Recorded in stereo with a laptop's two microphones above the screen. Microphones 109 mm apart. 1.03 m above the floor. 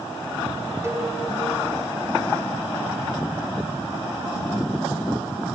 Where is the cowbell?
25° right (ahead or behind), 3 m.